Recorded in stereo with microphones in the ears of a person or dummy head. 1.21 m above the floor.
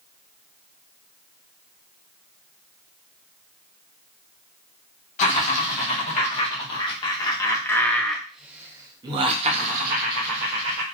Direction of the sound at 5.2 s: 45° left (ahead or behind).